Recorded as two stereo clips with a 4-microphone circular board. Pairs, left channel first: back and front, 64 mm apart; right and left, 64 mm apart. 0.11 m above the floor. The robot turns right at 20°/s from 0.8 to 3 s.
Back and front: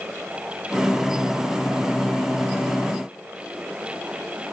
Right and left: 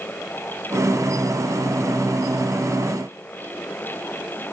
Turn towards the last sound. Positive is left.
No sound to turn to.